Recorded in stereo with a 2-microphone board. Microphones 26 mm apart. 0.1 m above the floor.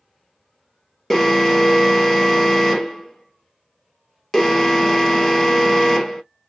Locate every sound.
1.1 s an alarm: 10° left (ahead or behind), 1.2 m